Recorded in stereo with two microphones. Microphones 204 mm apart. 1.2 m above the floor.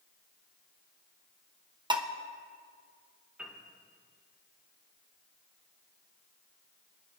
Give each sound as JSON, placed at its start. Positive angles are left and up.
{"t": 1.9, "sound": "dishes clattering", "side_deg": -20, "distance_m": 0.8}
{"t": 3.4, "sound": "a piano", "side_deg": -5, "distance_m": 1.9}